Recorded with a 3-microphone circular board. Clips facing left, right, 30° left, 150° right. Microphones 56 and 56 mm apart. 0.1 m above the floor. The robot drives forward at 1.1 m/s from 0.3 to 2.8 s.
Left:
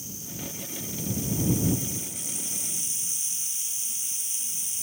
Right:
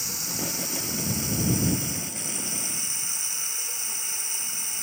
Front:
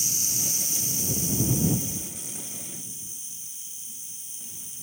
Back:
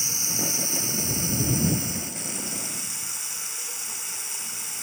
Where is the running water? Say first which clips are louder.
Right 6 dB, back 4 dB; 100° right; by 4.8 s 125° right.